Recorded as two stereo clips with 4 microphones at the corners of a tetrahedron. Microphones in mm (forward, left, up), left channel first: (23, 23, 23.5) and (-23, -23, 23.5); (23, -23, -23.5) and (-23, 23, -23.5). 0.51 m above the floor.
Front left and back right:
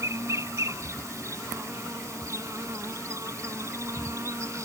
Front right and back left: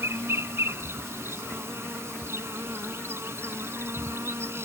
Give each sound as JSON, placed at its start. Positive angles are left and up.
{"t": 0.0, "sound": "an insect", "azimuth_deg": -175}